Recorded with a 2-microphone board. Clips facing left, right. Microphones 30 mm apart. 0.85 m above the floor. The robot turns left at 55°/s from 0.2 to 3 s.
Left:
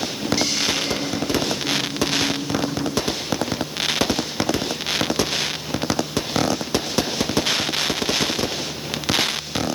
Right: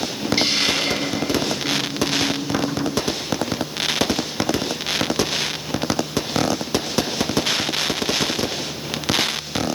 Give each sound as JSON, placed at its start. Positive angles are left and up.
{"t": 0.4, "sound": "a hiss", "azimuth_deg": -40, "distance_m": 0.9}